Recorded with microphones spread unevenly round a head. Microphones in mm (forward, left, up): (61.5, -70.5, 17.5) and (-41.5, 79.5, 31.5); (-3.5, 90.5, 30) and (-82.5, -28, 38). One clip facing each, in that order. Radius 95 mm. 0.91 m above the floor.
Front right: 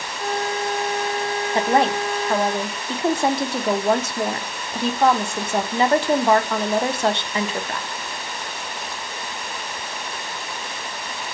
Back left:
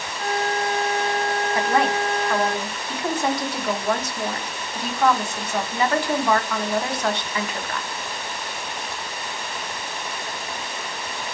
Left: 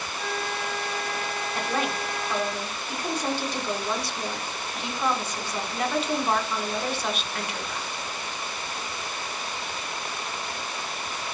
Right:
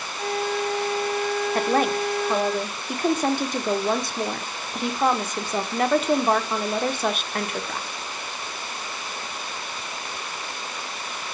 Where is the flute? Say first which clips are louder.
Even, right 7 dB; 30° right, 2.5 m.